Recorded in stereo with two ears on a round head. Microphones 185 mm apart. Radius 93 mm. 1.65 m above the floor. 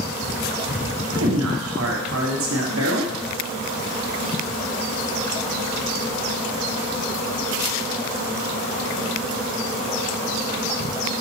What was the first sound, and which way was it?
A man speaking, 70° right (ahead or behind).